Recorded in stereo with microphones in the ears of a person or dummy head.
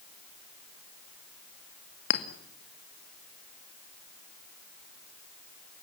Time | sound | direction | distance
2.1 | a clink | 60° left (ahead or behind) | 2.5 m